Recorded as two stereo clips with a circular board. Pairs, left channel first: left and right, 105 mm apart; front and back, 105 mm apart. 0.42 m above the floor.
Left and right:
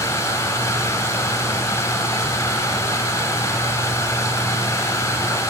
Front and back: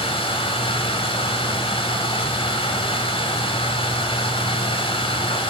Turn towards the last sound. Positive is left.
turn(degrees=25)